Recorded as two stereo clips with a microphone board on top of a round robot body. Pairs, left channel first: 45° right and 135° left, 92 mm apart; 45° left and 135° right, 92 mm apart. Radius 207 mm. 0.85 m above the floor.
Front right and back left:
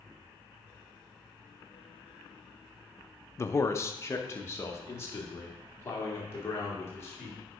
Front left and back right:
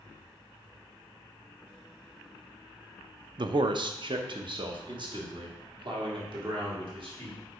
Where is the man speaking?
105° right, 0.6 m.